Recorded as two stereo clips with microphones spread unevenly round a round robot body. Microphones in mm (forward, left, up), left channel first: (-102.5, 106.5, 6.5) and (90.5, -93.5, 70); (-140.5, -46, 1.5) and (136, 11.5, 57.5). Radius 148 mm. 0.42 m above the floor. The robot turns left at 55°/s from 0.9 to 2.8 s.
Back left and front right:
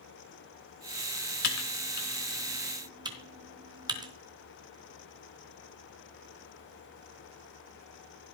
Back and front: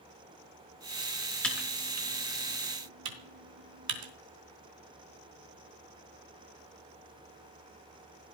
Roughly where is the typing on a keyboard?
Left.